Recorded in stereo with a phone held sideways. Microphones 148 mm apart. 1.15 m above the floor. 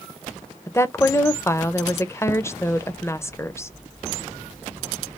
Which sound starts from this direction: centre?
A woman speaking, at 0.7 s.